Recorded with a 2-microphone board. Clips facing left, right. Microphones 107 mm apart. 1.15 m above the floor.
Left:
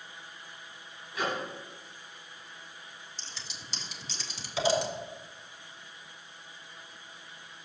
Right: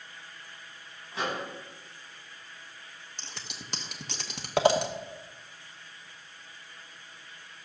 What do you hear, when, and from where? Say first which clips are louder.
1.1 s a microwave: even; 30° right (ahead or behind), 7 m
3.2 s scissors: right 5 dB; 60° right (ahead or behind), 1.2 m